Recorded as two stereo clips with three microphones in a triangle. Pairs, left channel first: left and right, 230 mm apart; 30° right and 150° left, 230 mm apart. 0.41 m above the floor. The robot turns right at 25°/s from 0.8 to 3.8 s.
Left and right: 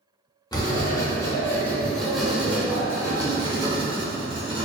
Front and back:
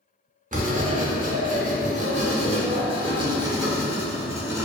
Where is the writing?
145° left, 0.5 m; by 4.6 s 140° right, 0.5 m.